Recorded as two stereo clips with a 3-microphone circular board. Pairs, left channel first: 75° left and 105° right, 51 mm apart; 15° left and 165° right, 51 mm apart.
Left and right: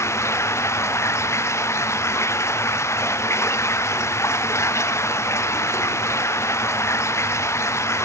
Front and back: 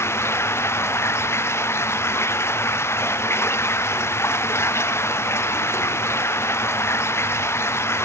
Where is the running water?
50° left.